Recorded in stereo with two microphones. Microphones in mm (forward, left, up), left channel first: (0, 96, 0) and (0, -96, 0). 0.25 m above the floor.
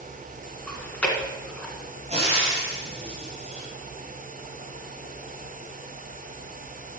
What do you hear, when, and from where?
0.7 s chewing: 5° left (ahead or behind), 1.7 m
2.1 s frying: 35° right (ahead or behind), 5 m